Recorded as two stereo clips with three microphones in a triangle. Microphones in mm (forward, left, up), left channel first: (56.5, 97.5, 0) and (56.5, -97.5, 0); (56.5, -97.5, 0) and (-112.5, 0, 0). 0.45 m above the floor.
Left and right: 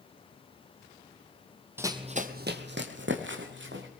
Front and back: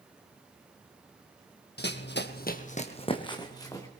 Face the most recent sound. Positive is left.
turn(degrees=-105)